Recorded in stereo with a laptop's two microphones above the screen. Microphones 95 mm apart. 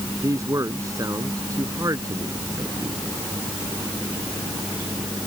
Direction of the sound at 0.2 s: 35° right (ahead or behind).